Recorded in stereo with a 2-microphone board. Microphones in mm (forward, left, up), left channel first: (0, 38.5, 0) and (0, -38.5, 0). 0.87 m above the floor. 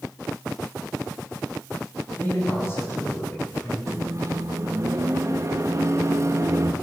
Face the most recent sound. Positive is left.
turn(degrees=-40)  # may be behind; listen again after turning